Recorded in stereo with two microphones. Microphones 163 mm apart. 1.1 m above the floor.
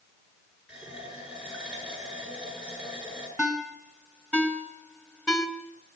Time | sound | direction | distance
0.7 | a running tap | 5° right (ahead or behind) | 9.5 m
3.4 | a ringtone | 5° right (ahead or behind) | 3 m